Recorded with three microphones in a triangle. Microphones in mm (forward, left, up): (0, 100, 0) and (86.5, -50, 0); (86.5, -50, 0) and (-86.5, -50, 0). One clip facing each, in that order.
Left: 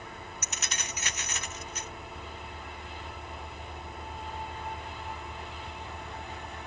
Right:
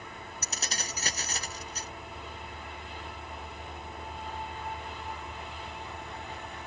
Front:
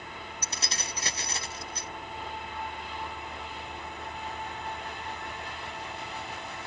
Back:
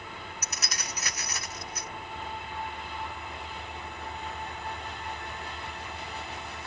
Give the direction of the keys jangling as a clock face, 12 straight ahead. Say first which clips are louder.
Right 4 dB, front 1 dB; 1 o'clock.